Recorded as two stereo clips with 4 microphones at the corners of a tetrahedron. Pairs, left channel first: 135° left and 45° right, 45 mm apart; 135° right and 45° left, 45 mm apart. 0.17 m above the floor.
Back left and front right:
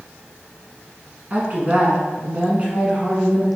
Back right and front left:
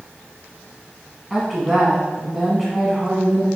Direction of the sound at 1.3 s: 35° right.